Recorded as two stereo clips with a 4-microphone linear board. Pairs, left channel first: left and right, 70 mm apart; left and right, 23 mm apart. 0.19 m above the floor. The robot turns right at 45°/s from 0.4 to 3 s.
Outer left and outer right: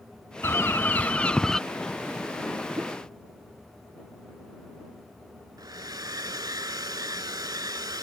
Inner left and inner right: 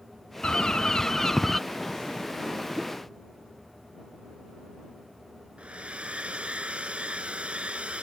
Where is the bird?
120° left; by 1.6 s 170° left.